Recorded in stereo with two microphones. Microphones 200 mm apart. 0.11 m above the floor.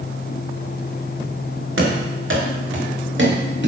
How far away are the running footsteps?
About 5 m.